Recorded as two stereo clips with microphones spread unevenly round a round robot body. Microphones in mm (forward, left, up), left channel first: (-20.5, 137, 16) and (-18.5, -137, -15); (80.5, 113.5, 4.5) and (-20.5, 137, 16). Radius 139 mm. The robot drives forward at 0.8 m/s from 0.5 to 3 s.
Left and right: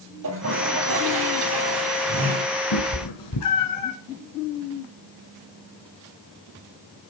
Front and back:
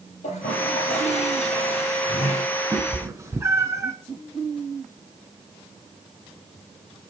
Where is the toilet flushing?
40° right, 8 m; by 2.5 s 50° right, 7 m.